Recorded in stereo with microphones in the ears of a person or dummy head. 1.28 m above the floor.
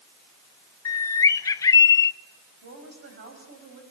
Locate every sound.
0.8 s a bird: 20° left (ahead or behind), 0.6 m
2.6 s a woman speaking: 55° right (ahead or behind), 7 m